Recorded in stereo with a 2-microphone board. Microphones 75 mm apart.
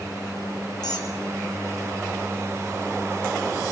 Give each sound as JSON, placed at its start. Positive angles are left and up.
{"t": 0.8, "sound": "a squeak", "side_deg": 60, "distance_m": 3.5}